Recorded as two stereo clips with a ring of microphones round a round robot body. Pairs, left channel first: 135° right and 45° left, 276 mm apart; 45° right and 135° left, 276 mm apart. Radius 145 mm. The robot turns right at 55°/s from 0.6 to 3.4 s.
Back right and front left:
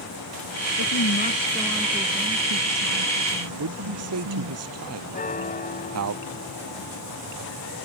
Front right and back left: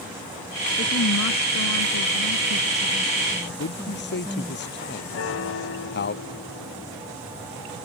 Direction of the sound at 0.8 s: 100° right.